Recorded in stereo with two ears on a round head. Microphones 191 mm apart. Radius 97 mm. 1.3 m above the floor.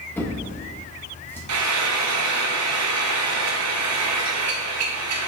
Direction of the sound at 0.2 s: 10° left (ahead or behind).